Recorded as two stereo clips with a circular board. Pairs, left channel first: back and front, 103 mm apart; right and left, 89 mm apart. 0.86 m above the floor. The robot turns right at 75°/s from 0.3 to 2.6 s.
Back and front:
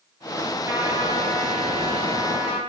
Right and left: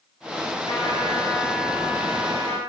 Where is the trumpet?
60° right, 8.5 m; by 2.6 s 85° left, 8.5 m.